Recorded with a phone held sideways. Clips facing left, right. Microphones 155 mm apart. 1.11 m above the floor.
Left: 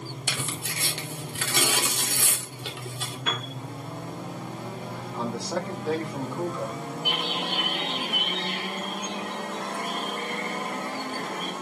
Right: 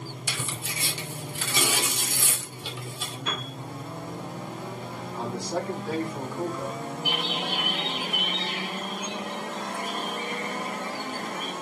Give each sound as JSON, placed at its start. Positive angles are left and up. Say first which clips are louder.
{"t": 0.3, "sound": "tearing paper", "louder": "left 2 dB", "side_deg": 60, "distance_m": 2.5}
{"t": 3.3, "sound": "a piano", "louder": "left 2 dB", "side_deg": 65, "distance_m": 1.8}
{"t": 5.1, "sound": "a man speaking", "louder": "even", "side_deg": 75, "distance_m": 6.0}
{"t": 7.0, "sound": "a bird", "louder": "even", "side_deg": 55, "distance_m": 3.0}